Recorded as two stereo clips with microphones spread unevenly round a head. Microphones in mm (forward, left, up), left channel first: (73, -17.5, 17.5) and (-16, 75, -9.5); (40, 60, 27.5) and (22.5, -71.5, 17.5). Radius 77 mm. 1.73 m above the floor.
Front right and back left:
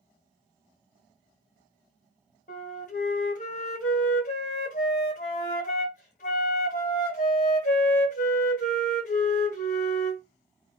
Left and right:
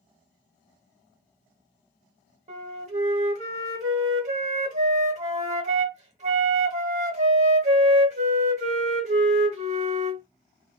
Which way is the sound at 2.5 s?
65° right.